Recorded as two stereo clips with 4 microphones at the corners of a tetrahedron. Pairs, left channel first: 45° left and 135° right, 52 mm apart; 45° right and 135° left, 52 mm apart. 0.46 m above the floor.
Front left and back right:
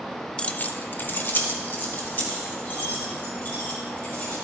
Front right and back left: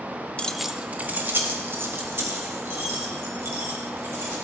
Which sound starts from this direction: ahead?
Keys jangling, at 0.4 s.